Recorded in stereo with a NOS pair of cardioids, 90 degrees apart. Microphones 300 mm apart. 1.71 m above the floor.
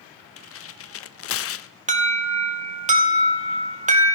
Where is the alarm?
25° right, 2.5 m.